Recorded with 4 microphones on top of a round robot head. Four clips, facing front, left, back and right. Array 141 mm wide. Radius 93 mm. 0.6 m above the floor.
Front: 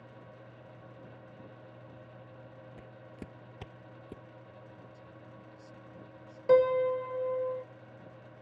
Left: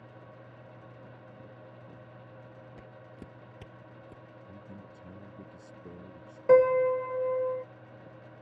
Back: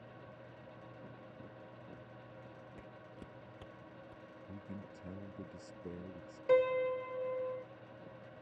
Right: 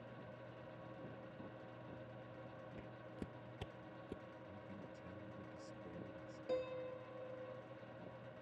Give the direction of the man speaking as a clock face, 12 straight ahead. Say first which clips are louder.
Left 7 dB, back 2 dB; 7 o'clock.